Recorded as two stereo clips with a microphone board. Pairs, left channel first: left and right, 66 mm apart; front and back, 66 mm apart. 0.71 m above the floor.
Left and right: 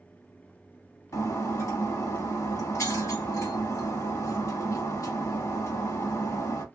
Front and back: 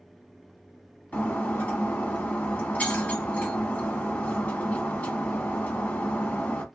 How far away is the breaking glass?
About 1.0 m.